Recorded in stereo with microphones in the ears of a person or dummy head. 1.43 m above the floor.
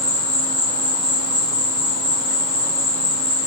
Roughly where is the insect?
Left.